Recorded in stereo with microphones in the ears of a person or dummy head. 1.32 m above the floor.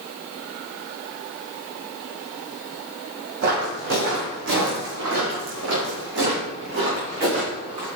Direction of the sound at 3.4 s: 60° right (ahead or behind).